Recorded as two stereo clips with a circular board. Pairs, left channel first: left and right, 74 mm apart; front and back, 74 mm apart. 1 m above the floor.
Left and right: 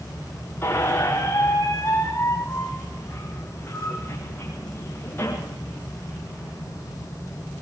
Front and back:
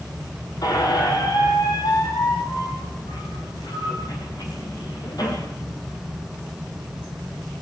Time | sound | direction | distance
0.6 | a squeak | 30° left | 4.5 m